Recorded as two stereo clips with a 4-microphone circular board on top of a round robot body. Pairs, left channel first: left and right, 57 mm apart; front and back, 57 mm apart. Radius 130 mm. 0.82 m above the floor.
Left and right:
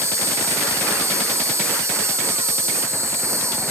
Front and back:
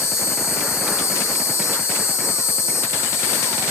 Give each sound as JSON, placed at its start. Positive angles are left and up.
{"t": 0.0, "sound": "an insect", "azimuth_deg": -45, "distance_m": 0.7}